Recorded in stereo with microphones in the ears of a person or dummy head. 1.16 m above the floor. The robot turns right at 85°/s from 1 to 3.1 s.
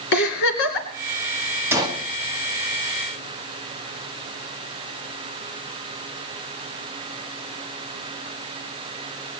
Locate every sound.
0.1 s a giggle: 60° left (ahead or behind), 2.5 m
1.7 s a gunshot: 15° right (ahead or behind), 1.7 m; by 2.0 s 40° right (ahead or behind), 1.7 m